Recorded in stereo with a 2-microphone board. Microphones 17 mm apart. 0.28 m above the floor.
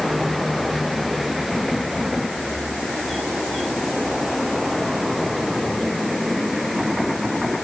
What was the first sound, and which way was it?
Only background noise.